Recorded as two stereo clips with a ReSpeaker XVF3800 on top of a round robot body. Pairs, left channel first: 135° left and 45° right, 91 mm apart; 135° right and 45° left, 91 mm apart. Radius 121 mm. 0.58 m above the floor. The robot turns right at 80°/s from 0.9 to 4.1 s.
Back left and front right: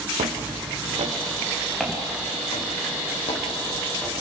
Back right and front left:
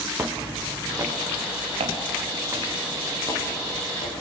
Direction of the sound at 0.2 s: 25° right.